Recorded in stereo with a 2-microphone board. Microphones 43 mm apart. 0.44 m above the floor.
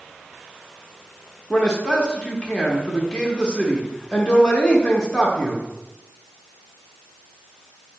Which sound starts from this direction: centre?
A man speaking, at 1.5 s.